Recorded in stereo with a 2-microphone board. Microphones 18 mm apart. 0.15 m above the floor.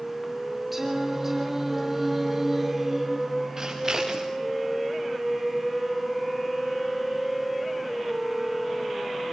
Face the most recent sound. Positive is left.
turn(degrees=-30)  # may be behind; listen again after turning